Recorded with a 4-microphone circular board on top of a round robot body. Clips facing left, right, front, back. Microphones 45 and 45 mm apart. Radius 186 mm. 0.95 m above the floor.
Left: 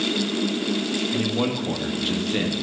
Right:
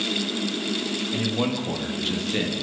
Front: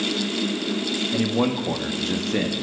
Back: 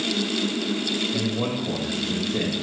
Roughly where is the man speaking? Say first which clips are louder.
Right 1 dB, front 4 dB; ahead.